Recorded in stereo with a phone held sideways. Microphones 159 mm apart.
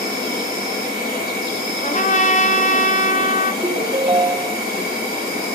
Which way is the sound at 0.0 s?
75° left (ahead or behind).